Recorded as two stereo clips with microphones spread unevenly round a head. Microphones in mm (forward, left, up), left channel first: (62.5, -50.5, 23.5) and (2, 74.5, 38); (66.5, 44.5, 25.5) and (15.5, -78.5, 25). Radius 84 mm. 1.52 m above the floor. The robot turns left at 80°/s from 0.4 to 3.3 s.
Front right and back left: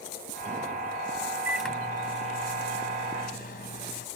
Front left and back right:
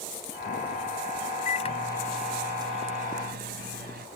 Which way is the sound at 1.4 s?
40° left.